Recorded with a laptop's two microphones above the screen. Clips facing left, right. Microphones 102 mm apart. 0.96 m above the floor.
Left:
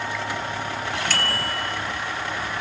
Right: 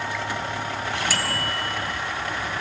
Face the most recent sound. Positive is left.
turn(degrees=-5)  # may be behind; listen again after turning